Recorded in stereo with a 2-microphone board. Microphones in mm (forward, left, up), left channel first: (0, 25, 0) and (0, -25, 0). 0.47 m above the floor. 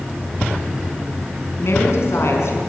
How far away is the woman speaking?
About 4.5 m.